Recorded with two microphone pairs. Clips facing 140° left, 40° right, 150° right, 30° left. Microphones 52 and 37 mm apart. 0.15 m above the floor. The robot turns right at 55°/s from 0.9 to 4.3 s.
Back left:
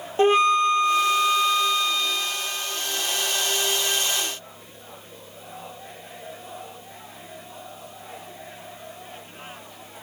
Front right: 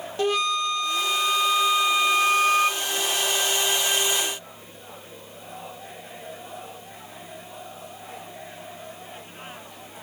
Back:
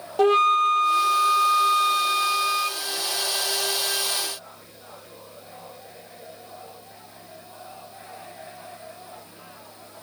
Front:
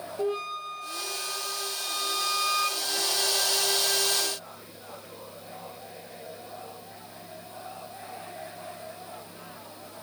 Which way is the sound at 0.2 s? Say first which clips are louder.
Back left 6 dB, back 14 dB; 170° right.